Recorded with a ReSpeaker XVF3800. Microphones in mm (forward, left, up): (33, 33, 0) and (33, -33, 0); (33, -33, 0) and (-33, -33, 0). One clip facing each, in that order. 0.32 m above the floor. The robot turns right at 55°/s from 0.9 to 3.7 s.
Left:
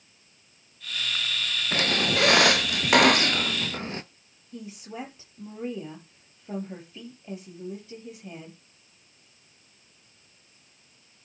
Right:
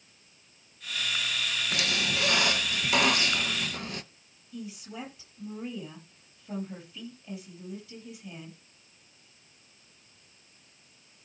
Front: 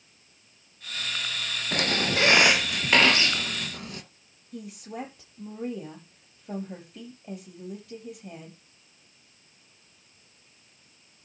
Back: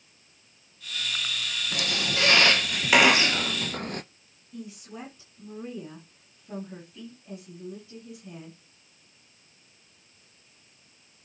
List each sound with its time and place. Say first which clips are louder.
1.7 s a squeak: left 7 dB, front 5 dB; 35° left, 0.7 m; by 4.0 s 145° left, 0.7 m
4.5 s a woman speaking: left 2 dB, front 3 dB; 30° left, 7.5 m